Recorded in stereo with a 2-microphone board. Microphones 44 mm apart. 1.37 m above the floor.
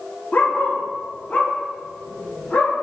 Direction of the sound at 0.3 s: 40° left (ahead or behind).